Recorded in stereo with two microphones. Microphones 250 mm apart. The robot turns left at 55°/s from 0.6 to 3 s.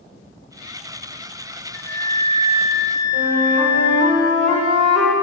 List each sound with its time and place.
1.7 s a flute: 125° right, 0.8 m; by 4.1 s 165° left, 0.8 m
3.1 s a flute: 70° right (ahead or behind), 1.7 m